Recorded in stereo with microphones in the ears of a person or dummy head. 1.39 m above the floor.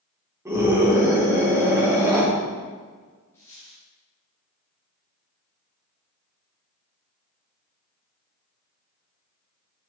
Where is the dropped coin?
15° left (ahead or behind), 3.5 m.